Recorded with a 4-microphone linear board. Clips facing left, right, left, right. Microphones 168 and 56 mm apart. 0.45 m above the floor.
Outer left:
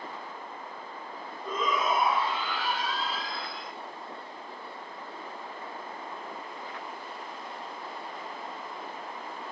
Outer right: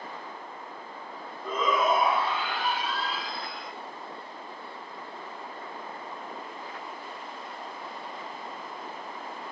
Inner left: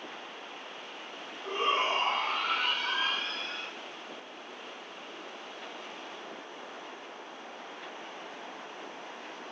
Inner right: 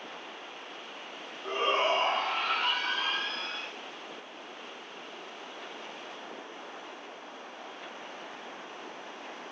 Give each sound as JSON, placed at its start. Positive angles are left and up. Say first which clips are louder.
{"t": 1.4, "sound": "a shout", "louder": "outer right 4 dB, inner right 1 dB", "side_deg": -65, "distance_m": 3.0}